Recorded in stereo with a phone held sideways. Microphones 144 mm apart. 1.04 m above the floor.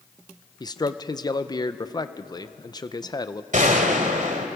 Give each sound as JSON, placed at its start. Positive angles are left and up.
{"t": 0.6, "sound": "a man speaking", "side_deg": 30, "distance_m": 0.7}
{"t": 3.5, "sound": "a gunshot", "side_deg": -60, "distance_m": 2.0}